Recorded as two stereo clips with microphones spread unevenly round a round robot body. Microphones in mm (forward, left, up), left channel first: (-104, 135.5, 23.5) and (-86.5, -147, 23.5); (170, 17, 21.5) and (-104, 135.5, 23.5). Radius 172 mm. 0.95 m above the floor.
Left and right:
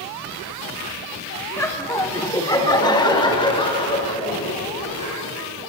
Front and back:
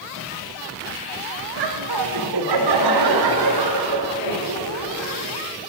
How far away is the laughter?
About 2 m.